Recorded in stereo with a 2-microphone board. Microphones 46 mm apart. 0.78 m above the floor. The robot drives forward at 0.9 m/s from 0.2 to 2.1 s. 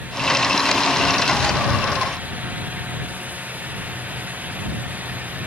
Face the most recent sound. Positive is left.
No sound to turn to.